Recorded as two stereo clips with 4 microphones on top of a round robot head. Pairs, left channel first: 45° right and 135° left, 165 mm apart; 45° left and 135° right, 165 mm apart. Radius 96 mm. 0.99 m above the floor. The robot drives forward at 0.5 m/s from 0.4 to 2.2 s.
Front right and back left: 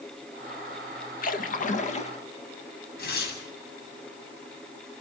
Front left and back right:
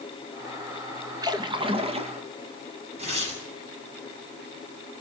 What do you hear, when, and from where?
1.2 s a splash: 70° right, 1.5 m; by 2.2 s 90° right, 1.4 m
3.0 s tearing paper: 80° right, 7.5 m